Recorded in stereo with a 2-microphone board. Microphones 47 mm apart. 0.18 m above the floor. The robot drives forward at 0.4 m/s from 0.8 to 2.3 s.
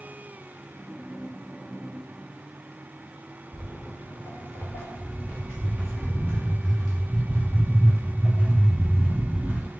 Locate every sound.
3.5 s footsteps: 75° left (ahead or behind), 1.1 m; by 9.7 s 15° right (ahead or behind), 3 m